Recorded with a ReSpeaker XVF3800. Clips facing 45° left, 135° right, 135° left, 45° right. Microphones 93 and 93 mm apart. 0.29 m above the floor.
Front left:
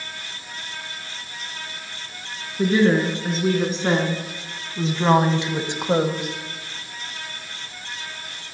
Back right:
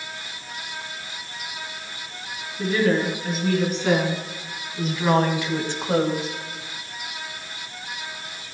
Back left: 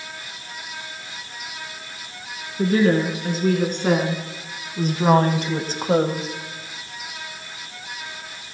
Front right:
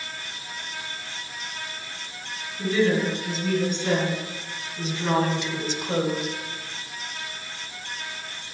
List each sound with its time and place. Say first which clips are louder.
2.6 s a woman speaking: front left 3 dB, back left 4 dB; 100° left, 4 m; by 6.3 s 120° left, 1.4 m